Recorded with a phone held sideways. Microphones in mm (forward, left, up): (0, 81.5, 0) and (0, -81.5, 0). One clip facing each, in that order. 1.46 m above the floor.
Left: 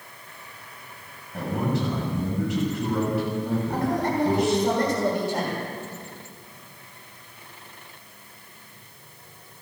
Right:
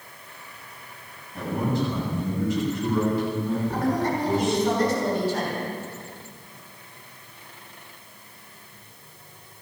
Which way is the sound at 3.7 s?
55° left (ahead or behind).